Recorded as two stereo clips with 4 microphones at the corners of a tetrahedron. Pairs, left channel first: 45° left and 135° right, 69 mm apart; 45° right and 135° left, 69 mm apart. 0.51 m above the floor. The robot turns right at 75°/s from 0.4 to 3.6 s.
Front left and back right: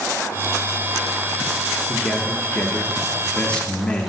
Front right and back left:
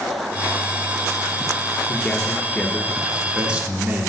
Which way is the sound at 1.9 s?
25° right.